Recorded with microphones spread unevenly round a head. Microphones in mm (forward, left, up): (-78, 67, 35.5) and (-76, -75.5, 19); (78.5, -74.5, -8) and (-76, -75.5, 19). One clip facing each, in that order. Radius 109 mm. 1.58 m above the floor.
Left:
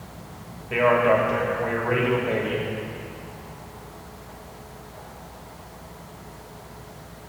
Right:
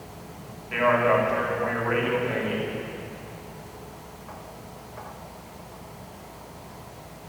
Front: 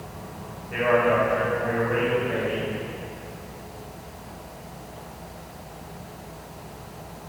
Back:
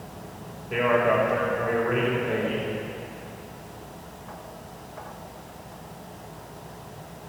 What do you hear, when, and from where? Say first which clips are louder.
0.7 s a man speaking: left 2 dB, front 1 dB; 145° left, 3 m